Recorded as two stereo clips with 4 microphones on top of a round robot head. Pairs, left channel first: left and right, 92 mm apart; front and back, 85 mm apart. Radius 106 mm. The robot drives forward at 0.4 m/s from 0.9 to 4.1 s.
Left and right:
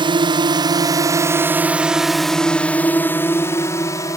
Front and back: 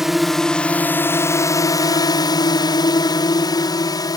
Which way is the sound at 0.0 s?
95° right.